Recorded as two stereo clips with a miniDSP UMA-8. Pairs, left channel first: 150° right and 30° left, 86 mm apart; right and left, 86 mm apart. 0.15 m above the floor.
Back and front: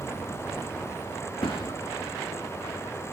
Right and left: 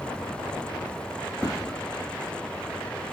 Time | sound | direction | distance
1.4 | a thud | 145° right | 3 m